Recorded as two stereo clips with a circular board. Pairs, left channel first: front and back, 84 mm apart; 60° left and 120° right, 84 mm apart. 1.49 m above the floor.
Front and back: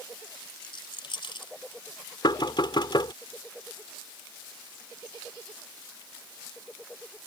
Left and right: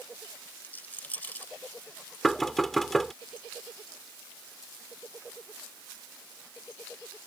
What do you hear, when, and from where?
0.6 s a rattle: 10° right
2.2 s knocking: 25° right